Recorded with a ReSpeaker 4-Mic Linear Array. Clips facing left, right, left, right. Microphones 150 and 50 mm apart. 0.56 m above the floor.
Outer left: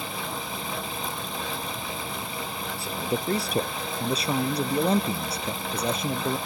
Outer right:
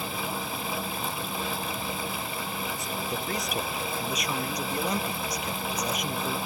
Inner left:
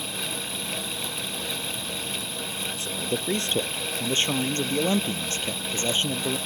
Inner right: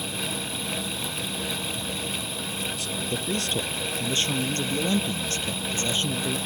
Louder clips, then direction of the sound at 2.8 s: Outer left 4 dB, inner left 1 dB; 30° left (ahead or behind).